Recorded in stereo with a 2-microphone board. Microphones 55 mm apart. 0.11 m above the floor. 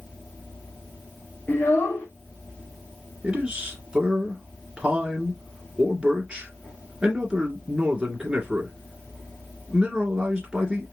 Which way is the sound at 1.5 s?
45° left (ahead or behind).